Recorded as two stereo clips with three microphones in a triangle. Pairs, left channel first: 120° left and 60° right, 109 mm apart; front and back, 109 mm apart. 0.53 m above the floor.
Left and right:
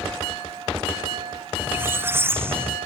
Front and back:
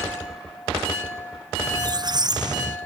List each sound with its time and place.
1.6 s a squeak: 130° right